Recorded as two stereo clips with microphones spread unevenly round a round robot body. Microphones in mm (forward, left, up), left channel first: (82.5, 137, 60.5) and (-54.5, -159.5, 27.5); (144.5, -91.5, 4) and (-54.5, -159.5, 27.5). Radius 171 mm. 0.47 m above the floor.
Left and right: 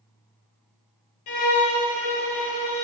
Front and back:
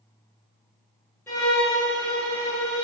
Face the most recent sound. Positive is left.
turn(degrees=105)